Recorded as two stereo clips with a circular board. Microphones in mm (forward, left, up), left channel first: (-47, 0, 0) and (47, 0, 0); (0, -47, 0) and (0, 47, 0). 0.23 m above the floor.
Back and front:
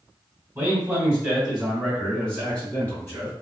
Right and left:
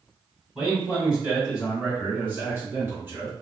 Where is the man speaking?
15° left, 1.7 m; by 3.3 s 130° left, 1.9 m.